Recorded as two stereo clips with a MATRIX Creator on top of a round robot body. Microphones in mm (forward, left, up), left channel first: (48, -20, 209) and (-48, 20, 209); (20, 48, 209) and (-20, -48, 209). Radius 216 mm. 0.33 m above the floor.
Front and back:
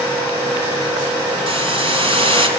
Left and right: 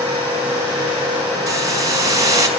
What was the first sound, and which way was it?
A hiss, 170° right.